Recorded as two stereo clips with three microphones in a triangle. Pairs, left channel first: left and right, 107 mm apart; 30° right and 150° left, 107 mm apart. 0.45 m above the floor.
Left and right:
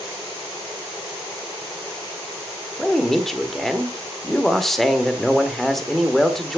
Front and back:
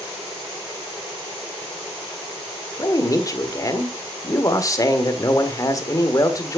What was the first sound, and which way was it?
A man speaking, 5° left.